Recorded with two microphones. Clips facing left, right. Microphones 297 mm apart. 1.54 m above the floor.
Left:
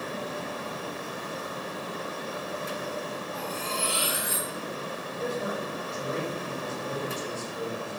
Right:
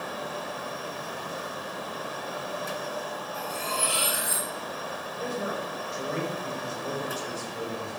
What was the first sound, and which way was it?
Cutlery clinking, 25° left (ahead or behind).